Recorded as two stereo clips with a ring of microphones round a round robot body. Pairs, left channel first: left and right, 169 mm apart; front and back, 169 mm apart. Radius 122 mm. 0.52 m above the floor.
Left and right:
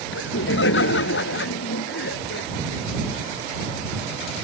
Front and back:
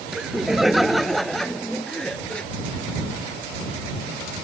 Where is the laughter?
90° left; by 2.5 s 85° left.